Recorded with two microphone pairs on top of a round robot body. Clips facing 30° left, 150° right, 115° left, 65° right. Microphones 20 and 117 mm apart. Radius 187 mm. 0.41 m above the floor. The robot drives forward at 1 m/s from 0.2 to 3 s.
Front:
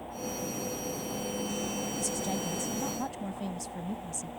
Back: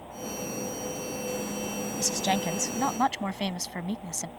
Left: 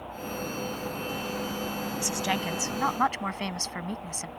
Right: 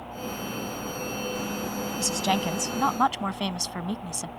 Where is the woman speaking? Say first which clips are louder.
Back 10 dB, right 5 dB; 125° right; by 4.3 s 135° right.